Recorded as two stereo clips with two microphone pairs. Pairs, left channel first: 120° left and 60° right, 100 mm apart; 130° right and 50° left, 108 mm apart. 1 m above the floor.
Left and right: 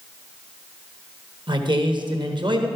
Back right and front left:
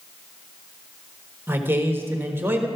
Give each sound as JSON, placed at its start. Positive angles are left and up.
{"t": 1.5, "sound": "a man speaking", "azimuth_deg": -25, "distance_m": 1.1}